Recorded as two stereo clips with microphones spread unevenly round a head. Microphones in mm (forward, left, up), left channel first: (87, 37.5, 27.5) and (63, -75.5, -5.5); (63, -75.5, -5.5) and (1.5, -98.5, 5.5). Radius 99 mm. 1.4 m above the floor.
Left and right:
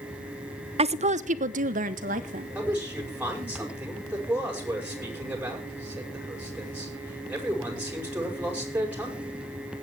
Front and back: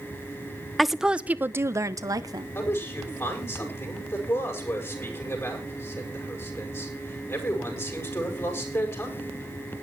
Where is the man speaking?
25° right, 7.5 m.